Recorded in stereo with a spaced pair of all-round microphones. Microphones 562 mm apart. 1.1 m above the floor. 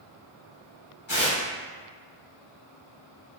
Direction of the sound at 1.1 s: 55° left (ahead or behind).